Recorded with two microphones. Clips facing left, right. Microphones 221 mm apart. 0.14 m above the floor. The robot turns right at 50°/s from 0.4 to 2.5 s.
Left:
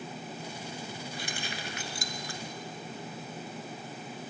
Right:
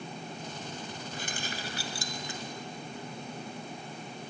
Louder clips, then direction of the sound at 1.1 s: Even; 50° right (ahead or behind).